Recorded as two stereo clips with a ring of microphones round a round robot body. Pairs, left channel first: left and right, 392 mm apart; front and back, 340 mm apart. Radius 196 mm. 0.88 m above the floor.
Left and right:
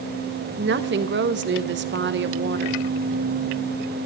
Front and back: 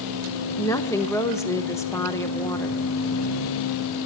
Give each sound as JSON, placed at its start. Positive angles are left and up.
{"t": 0.6, "sound": "a woman speaking", "azimuth_deg": -75, "distance_m": 0.9}